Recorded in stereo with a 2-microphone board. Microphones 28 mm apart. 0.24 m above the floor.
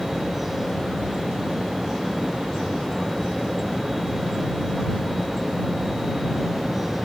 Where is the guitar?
No guitar in this recording.